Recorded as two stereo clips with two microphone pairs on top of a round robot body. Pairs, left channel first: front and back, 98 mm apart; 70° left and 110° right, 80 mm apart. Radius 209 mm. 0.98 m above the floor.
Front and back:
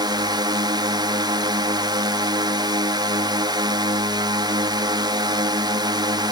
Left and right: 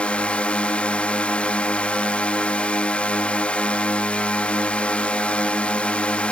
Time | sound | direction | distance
0.0 | a drone | 145° left | ?